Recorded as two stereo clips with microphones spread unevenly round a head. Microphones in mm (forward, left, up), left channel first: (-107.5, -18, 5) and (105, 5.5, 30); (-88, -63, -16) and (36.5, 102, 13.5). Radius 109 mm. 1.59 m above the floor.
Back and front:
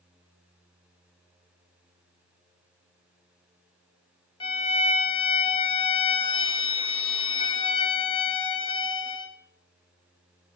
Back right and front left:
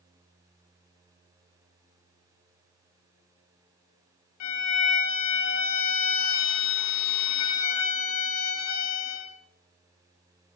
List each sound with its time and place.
4.4 s a violin: 105° right, 0.9 m